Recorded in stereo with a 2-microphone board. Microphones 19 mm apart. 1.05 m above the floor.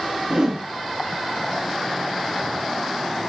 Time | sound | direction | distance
0.3 | a whoosh | 50° right (ahead or behind) | 1.3 m